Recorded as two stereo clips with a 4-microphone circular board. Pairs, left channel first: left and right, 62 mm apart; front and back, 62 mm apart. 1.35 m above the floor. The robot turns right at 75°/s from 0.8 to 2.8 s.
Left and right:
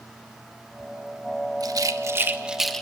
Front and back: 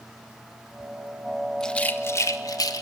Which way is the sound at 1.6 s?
80° right.